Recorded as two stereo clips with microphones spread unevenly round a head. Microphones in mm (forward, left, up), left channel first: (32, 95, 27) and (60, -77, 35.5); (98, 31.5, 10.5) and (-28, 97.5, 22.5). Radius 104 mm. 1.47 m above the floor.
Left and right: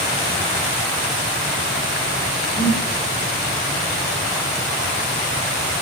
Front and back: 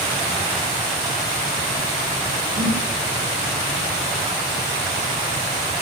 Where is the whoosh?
135° left, 5 m.